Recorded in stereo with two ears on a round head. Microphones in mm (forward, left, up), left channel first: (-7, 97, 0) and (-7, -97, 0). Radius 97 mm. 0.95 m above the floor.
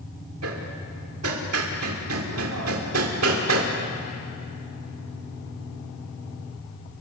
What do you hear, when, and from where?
0.4 s hammering: 70° right (ahead or behind), 2.5 m